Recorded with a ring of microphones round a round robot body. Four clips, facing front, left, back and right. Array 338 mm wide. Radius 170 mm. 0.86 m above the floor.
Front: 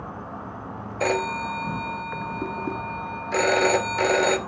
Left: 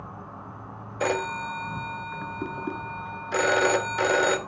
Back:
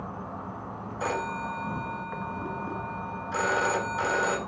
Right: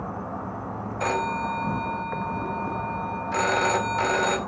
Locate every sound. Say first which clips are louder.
0.0 s an insect: right 8 dB, front 2 dB; 75° right, 1.2 m
1.0 s a phone ringing: right 1 dB, front 6 dB; 35° left, 1.1 m